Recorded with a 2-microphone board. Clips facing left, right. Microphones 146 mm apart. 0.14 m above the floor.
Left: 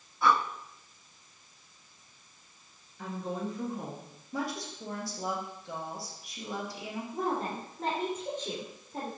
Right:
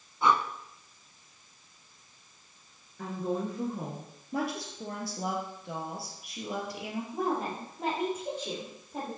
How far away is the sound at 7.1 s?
About 3.5 m.